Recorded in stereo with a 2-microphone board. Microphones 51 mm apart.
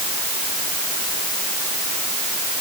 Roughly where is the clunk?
I don't hear a clunk.